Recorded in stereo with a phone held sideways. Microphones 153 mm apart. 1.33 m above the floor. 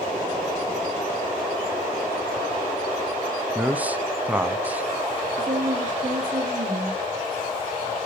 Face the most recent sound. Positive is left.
turn(degrees=-65)  # may be behind; listen again after turning